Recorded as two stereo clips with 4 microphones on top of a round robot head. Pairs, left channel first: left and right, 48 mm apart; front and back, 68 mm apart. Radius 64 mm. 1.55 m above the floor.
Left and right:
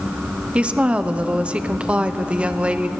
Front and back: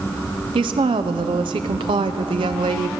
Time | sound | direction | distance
0.6 | a woman speaking | 155° right | 0.5 m